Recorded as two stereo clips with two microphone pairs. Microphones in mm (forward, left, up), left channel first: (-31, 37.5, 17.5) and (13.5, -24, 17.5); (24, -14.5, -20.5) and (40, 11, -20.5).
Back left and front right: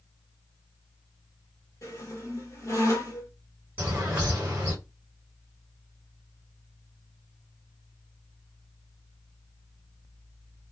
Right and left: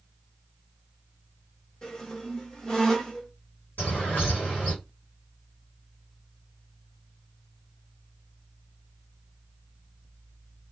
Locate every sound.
1.8 s a squeak: 175° left, 1.0 m
3.8 s a bird: 125° right, 1.6 m